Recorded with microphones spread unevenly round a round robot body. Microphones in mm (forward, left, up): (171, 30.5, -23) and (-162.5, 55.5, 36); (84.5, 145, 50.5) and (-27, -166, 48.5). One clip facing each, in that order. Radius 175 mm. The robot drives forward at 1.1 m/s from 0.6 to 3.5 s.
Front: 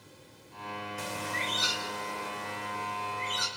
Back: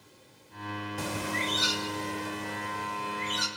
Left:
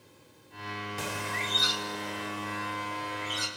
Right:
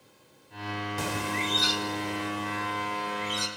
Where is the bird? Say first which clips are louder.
Back 6 dB, right 6 dB; 140° right, 0.5 m; by 3.5 s 175° right, 3 m.